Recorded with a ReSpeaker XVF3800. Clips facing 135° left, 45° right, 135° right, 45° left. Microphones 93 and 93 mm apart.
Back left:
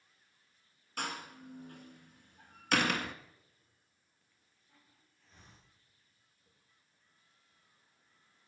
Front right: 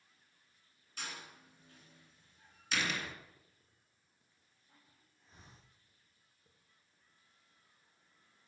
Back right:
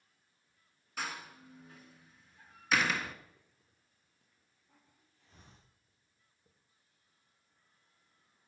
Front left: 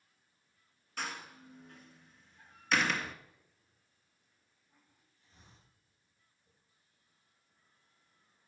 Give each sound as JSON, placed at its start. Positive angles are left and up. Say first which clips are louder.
{"t": 1.0, "sound": "a door slam", "louder": "back left 8 dB, even", "azimuth_deg": 140, "distance_m": 1.7}
{"t": 3.4, "sound": "a hiss", "louder": "front right 1 dB, back right 1 dB", "azimuth_deg": -115, "distance_m": 5.0}